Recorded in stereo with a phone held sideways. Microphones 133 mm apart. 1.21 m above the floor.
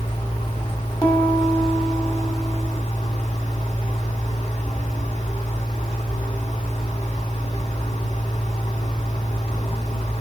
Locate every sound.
0.0 s a fan: 45° left (ahead or behind), 4.5 m
1.0 s a piano: 25° left (ahead or behind), 1.8 m